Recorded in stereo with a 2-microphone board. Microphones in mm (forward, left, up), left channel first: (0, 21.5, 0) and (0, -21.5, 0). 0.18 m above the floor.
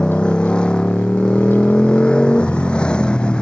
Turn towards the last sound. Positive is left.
turn(degrees=20)  # may be behind; listen again after turning